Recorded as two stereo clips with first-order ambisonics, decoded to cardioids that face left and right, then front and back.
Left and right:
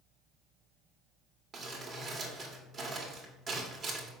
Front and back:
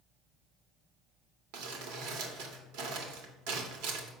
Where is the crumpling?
165° right, 2 m.